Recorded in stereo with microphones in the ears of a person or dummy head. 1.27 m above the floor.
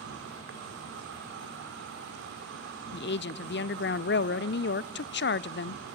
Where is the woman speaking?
60° left (ahead or behind), 0.5 m.